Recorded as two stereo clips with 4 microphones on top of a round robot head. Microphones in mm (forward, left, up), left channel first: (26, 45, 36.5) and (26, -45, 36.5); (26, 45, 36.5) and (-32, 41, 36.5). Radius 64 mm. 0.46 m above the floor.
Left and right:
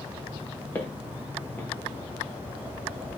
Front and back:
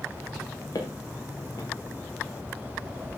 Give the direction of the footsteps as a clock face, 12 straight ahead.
11 o'clock.